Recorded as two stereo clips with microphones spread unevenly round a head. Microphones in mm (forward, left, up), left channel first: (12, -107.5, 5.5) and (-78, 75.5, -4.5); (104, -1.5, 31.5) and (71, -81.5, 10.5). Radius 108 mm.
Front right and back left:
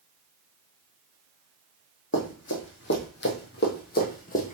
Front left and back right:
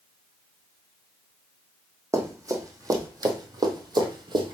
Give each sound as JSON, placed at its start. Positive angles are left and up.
{"t": 2.1, "sound": "running footsteps", "azimuth_deg": -55, "distance_m": 2.5}